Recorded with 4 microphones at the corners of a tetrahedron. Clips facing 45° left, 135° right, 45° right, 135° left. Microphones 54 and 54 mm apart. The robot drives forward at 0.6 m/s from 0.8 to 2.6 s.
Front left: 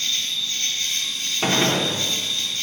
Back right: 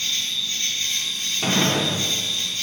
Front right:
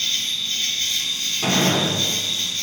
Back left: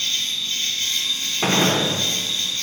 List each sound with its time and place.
0.0 s an insect: 145° right, 1.8 m; by 2.6 s 165° right, 2.5 m
1.4 s a gunshot: 100° left, 0.5 m; by 1.9 s 130° left, 0.6 m